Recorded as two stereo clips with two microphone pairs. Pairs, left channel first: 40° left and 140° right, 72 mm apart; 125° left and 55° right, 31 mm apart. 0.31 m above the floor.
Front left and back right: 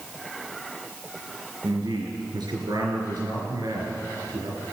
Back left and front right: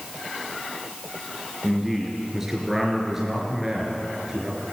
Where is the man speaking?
135° right, 4.5 m.